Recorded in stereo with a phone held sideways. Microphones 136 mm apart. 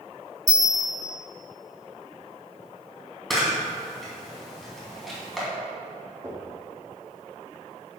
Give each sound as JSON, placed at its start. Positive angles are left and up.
{"t": 0.5, "sound": "a bell", "side_deg": 30, "distance_m": 1.2}
{"t": 3.3, "sound": "a camera shutter", "side_deg": 0, "distance_m": 3.0}
{"t": 6.2, "sound": "knocking", "side_deg": -25, "distance_m": 1.9}